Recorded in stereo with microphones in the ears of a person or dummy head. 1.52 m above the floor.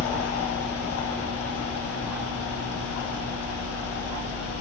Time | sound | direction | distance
0.0 | a fan | 80° left | 1.5 m